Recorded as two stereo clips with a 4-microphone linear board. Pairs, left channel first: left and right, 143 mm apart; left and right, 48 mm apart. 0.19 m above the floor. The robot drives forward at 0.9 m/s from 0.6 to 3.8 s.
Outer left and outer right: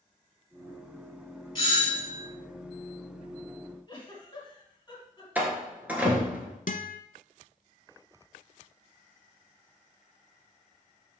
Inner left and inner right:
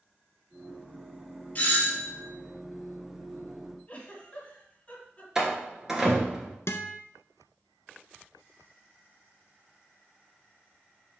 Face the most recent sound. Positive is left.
turn(degrees=65)  # may be behind; listen again after turning